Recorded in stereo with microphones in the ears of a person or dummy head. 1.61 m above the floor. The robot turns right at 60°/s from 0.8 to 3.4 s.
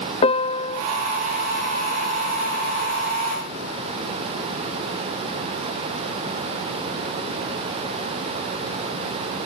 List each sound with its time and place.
0.2 s a piano: 30° left (ahead or behind)